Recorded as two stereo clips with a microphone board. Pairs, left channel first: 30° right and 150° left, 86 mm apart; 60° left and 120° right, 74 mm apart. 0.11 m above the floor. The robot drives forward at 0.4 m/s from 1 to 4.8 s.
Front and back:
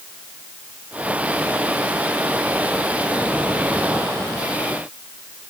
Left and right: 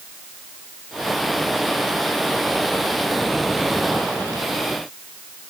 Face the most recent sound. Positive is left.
No sound to turn to.